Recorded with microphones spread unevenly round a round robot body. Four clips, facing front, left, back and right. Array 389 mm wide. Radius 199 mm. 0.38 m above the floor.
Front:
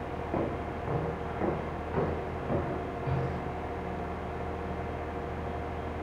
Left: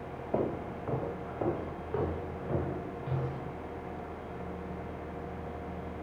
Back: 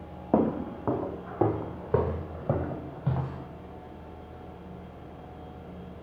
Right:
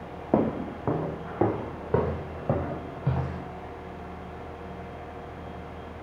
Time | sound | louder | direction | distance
0.3 | footsteps | right 7 dB, back 8 dB | 125° right | 2.0 m